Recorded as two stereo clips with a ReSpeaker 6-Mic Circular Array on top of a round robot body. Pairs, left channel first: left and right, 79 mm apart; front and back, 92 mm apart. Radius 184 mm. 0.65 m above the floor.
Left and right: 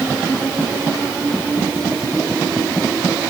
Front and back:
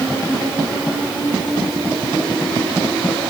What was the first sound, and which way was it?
Only background noise.